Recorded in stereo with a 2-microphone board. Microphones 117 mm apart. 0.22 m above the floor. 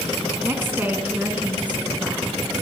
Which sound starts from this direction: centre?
A woman speaking, at 0.4 s.